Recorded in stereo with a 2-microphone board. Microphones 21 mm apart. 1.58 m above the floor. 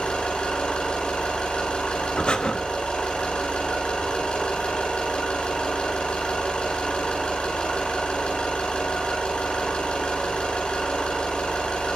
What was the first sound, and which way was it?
An engine running, 80° left.